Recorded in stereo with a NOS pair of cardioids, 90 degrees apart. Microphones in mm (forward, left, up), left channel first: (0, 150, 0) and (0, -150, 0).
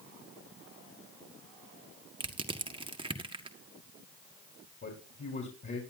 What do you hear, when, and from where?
2.2 s crushing: 15° right, 1.6 m
4.8 s a man speaking: 35° left, 4 m